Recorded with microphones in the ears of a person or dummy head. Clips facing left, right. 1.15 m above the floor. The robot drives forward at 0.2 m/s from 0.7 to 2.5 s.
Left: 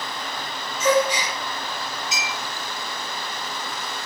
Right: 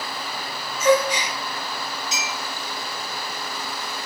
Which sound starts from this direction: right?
A clink, at 2.1 s.